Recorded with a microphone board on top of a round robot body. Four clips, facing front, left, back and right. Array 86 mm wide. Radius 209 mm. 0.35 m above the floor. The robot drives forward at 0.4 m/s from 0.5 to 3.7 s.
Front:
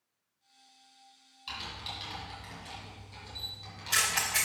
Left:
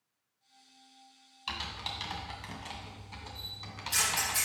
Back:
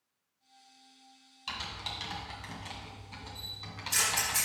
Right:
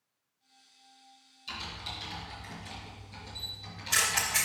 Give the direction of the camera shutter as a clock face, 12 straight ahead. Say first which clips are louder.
Even, back 1 dB; 1 o'clock.